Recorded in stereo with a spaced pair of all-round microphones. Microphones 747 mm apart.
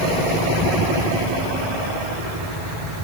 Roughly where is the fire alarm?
I don't hear a fire alarm.